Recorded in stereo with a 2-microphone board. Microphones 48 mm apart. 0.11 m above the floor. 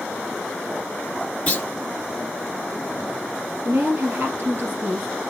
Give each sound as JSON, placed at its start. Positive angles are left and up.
{"t": 1.5, "sound": "a clunk", "side_deg": 35, "distance_m": 1.8}
{"t": 3.6, "sound": "a woman speaking", "side_deg": -55, "distance_m": 2.5}